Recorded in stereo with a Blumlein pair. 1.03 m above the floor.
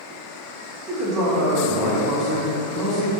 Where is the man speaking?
10° left, 1.2 m.